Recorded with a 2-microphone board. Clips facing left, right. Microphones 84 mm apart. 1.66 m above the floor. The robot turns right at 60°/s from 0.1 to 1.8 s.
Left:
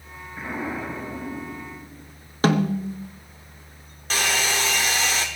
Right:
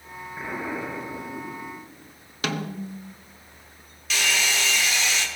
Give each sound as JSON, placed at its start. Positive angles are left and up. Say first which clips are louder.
{"t": 0.4, "sound": "an explosion", "louder": "left 1 dB", "azimuth_deg": -5, "distance_m": 9.5}
{"t": 2.4, "sound": "a snare drum", "louder": "left 9 dB", "side_deg": 35, "distance_m": 0.9}
{"t": 4.1, "sound": "a hair dryer", "louder": "left 2 dB", "side_deg": 40, "distance_m": 1.7}